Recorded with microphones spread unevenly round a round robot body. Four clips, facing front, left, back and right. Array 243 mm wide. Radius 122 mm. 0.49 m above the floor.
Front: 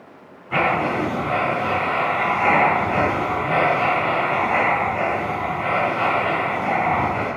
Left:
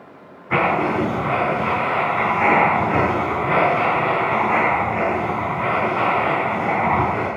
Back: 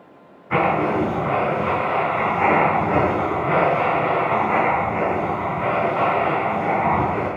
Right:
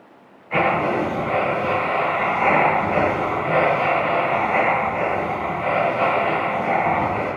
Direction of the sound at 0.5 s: 110° left.